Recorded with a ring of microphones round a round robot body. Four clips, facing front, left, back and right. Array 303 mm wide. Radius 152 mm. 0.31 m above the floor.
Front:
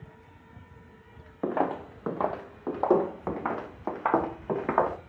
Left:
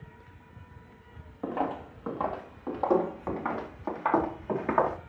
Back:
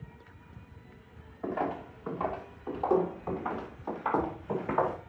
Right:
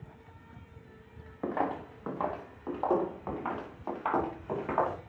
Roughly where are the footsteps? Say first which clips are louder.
Left 1 dB, front 5 dB; ahead.